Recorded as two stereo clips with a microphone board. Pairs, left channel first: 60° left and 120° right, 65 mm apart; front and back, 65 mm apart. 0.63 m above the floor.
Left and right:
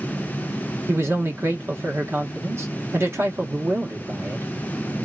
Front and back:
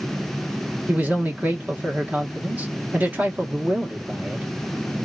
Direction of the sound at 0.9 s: 130° right.